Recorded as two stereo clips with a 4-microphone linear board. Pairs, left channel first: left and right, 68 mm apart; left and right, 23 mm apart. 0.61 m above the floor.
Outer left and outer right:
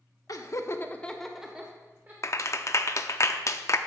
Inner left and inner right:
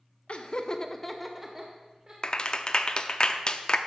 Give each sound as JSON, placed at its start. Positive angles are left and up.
{"t": 0.3, "sound": "laughter", "side_deg": 60, "distance_m": 1.0}
{"t": 2.2, "sound": "a clap", "side_deg": 45, "distance_m": 0.5}